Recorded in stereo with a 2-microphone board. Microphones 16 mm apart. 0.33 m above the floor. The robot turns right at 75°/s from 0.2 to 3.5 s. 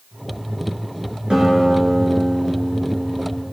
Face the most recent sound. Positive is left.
turn(degrees=110)